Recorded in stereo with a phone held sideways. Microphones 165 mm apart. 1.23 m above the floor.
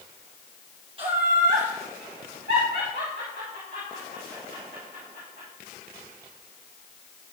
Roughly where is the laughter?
Right.